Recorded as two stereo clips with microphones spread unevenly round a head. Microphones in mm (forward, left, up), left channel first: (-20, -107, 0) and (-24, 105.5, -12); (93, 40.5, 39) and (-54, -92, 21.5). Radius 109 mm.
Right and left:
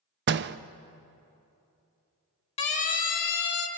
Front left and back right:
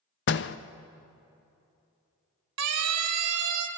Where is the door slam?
60° left, 0.6 m.